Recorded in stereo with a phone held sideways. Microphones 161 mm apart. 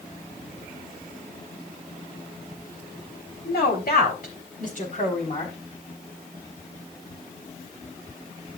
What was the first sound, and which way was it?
A woman speaking, 80° left.